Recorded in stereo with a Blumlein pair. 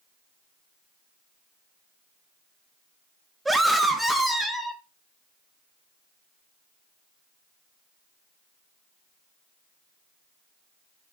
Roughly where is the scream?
Ahead.